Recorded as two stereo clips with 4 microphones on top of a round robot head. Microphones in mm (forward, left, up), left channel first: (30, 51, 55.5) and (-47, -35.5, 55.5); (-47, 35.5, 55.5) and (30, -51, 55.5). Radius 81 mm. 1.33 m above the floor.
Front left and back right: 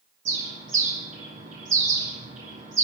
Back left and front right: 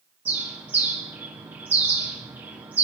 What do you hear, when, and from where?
0.2 s a bird: 125° right, 8 m